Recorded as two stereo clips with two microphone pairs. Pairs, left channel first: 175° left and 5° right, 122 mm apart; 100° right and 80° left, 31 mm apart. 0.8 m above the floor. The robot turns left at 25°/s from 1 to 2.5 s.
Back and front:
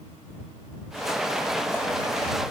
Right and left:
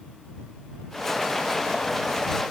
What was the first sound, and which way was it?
Only background noise.